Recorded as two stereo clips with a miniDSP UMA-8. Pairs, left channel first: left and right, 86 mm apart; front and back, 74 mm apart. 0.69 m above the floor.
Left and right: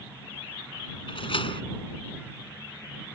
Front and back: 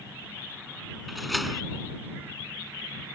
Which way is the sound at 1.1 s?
90° left.